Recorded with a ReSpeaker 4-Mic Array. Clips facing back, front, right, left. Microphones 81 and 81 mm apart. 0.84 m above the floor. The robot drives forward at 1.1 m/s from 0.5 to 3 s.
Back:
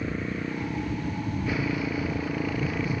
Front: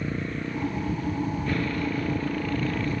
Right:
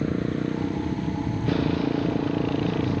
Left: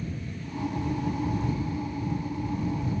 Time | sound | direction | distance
0.0 | a motorcycle | 95° right | ?